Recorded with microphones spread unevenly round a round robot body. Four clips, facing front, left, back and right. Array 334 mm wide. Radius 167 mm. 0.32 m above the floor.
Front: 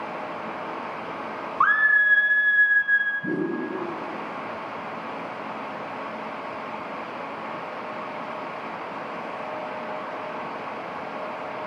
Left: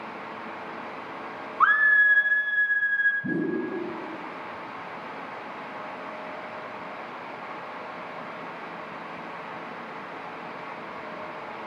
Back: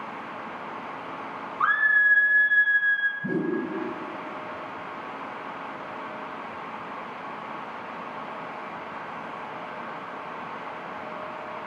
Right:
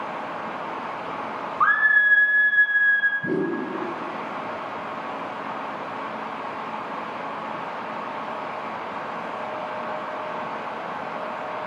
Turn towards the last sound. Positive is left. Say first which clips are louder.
# right 3 dB, even
turn(degrees=-60)